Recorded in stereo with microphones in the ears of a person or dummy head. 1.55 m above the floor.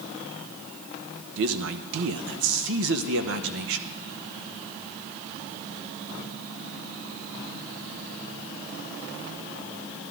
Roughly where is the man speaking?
Right.